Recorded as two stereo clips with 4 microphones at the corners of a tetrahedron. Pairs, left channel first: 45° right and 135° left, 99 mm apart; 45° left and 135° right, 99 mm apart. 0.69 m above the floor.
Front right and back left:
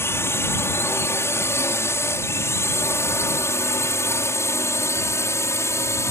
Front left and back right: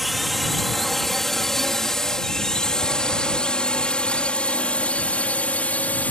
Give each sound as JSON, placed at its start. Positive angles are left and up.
{"t": 0.0, "sound": "a drone", "azimuth_deg": -45}